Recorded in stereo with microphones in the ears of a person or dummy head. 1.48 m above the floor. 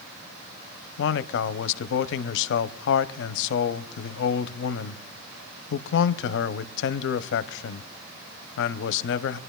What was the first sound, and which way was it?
A man speaking, 65° left (ahead or behind).